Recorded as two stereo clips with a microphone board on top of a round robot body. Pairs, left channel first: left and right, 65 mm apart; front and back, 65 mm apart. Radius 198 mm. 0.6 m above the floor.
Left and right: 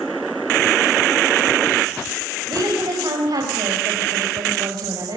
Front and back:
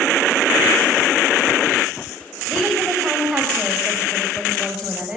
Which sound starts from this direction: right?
A woman speaking, at 2.5 s.